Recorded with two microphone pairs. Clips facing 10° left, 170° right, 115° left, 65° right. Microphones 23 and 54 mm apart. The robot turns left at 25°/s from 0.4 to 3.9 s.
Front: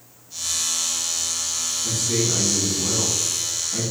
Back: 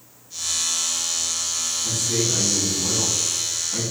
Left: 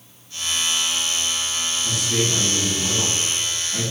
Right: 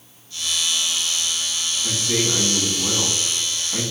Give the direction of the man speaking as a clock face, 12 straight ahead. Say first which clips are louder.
Front 1 dB, right 1 dB; 1 o'clock.